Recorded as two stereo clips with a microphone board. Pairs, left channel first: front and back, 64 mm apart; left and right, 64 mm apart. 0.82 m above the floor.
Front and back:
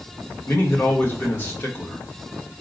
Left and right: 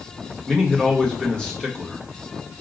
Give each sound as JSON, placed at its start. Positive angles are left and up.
{"t": 0.5, "sound": "a man speaking", "azimuth_deg": 25, "distance_m": 1.3}